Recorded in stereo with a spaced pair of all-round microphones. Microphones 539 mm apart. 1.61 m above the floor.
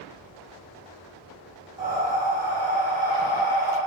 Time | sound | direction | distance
1.8 | breathing | 20° left (ahead or behind) | 1.5 m